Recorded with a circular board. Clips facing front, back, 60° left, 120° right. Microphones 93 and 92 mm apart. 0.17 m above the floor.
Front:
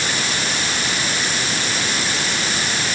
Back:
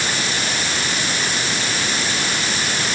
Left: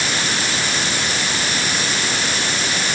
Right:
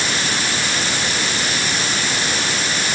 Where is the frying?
No frying in this recording.